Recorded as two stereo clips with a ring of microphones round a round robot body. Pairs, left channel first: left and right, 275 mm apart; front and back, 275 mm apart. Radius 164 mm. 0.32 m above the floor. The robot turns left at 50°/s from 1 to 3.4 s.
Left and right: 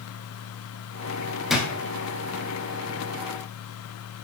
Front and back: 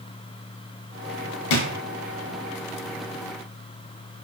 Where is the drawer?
Straight ahead, 0.6 m; by 1.7 s 10° right, 0.6 m.